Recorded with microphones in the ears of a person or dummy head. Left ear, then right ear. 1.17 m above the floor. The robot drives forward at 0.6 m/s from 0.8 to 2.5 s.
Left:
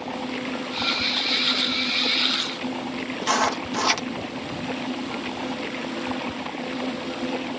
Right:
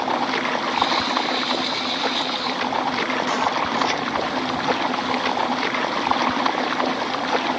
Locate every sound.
0.0 s running water: 50° right (ahead or behind)
3.2 s writing: 40° left (ahead or behind)